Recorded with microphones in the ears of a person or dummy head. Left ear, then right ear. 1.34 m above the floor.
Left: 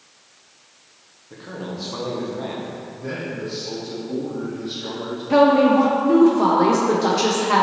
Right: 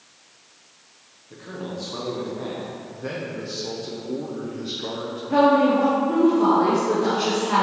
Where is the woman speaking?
70° left (ahead or behind), 0.9 m.